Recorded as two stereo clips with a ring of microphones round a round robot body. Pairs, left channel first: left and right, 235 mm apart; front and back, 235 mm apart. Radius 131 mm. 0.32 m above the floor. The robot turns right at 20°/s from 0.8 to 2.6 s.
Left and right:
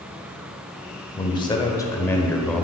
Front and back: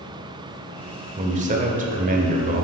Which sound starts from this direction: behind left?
A man speaking, at 1.2 s.